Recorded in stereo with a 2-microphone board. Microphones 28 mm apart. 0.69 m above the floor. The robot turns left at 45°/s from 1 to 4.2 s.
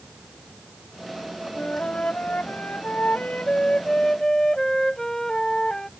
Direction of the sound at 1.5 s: 140° left.